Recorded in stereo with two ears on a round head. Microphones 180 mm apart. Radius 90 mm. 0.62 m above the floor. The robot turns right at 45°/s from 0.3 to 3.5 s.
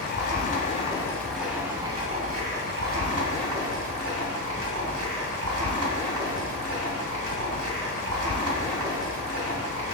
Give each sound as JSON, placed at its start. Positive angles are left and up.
{"t": 0.0, "sound": "running water", "azimuth_deg": 135, "distance_m": 1.6}